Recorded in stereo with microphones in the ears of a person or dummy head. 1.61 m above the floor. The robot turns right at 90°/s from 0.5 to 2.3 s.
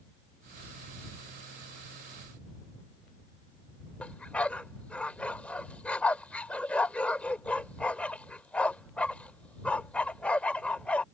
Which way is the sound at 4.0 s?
10° left (ahead or behind).